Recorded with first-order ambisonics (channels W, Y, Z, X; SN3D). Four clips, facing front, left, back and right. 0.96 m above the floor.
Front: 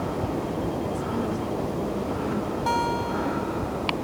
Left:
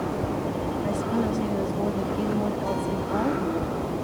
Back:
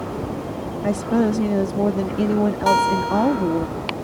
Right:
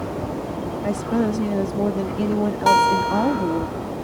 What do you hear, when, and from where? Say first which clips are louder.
0.8 s a woman speaking: right 6 dB, back 8 dB; 155° right
2.7 s a guitar: right 11 dB, back 7 dB; 115° right